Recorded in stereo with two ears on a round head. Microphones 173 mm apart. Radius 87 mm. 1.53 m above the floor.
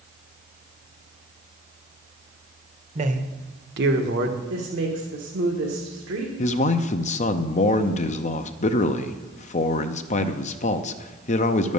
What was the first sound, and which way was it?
A man speaking, 35° right (ahead or behind).